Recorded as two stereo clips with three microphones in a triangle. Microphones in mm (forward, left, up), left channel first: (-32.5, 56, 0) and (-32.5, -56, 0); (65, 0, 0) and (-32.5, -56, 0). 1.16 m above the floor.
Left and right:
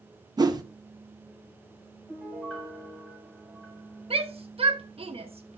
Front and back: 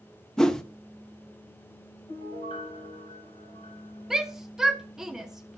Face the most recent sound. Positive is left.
turn(degrees=-65)